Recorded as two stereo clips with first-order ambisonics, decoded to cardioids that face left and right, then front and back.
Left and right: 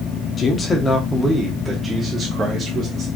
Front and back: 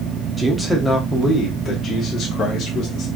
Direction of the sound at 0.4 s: 105° left.